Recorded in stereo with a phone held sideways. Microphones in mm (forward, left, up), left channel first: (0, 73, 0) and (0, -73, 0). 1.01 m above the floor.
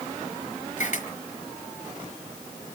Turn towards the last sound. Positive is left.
turn(degrees=60)  # may be behind; listen again after turning